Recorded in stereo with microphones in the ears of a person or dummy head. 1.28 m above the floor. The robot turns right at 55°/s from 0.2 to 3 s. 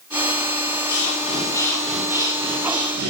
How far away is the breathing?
About 4 m.